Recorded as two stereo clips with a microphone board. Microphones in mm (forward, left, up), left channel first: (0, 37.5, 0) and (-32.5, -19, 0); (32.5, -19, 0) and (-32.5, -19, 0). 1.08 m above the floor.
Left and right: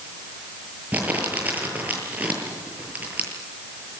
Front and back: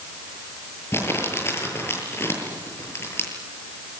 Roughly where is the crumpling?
Ahead right.